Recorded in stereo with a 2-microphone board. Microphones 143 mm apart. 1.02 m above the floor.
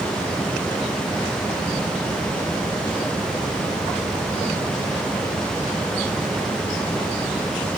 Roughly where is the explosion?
I don't hear an explosion.